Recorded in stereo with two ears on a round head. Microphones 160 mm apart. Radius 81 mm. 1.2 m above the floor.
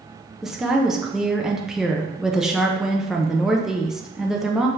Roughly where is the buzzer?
I don't hear a buzzer.